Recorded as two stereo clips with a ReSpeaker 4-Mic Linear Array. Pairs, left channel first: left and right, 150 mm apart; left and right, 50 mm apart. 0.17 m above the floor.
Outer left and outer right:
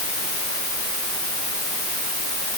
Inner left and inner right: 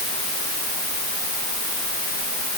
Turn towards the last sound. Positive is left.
No sound to turn to.